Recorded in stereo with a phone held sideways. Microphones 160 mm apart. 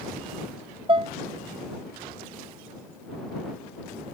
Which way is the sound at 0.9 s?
35° right (ahead or behind).